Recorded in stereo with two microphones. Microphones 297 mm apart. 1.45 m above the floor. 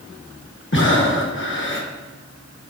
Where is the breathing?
40° left (ahead or behind), 1.0 m.